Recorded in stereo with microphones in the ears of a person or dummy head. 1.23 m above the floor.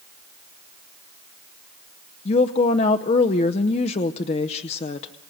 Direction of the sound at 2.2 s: 35° left (ahead or behind).